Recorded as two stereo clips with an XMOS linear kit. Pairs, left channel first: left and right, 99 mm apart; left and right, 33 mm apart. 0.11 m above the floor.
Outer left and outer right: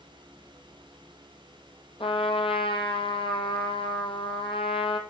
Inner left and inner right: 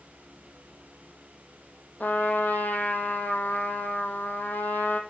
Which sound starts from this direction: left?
A trumpet, at 2.0 s.